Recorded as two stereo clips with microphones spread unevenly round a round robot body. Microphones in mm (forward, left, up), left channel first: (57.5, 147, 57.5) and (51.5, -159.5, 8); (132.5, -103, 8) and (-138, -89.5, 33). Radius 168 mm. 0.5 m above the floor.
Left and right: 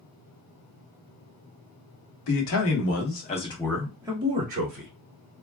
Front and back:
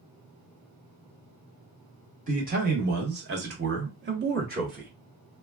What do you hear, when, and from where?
2.3 s a man speaking: 115° left, 1.0 m; by 4.9 s 125° right, 1.1 m